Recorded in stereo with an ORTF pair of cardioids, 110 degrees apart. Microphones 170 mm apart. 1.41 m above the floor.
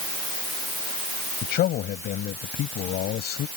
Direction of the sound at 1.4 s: 70° left.